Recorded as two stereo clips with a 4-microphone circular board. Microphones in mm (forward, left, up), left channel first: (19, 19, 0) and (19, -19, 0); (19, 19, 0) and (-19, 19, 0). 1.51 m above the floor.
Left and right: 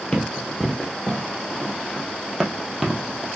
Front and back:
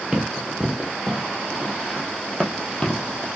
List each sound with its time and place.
0.1 s running footsteps: 135° left, 1.7 m; by 3.3 s 15° right, 1.7 m